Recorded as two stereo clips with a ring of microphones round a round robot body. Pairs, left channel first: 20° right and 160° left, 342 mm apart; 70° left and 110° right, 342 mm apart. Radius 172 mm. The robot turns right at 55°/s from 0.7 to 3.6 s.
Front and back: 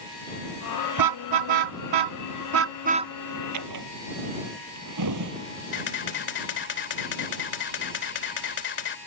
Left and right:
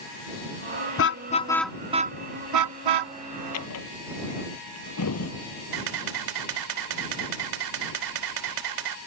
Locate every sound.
1.0 s a car horn: 120° left; by 3.1 s 120° right
3.5 s a drawer: 115° left
5.7 s a camera shutter: 80° right